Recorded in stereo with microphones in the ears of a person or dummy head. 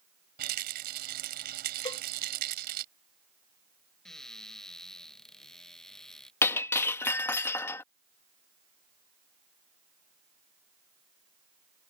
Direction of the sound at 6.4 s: 15° left (ahead or behind).